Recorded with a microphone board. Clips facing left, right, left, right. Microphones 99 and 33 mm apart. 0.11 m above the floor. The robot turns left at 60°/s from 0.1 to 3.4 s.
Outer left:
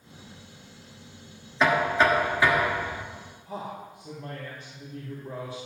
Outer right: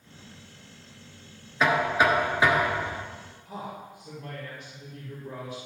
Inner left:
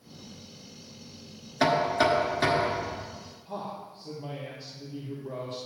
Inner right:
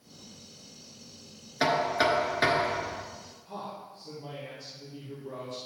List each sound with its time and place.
1.6 s knocking: centre (ahead or behind), 1.2 m; by 3.0 s 30° right (ahead or behind), 1.2 m
3.5 s a man speaking: 35° left (ahead or behind), 3.5 m